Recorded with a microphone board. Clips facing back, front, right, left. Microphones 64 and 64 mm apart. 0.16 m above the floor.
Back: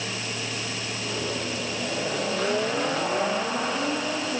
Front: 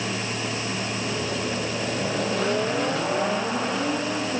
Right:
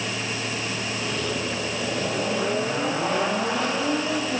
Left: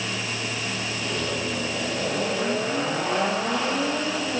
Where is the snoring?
No snoring in this recording.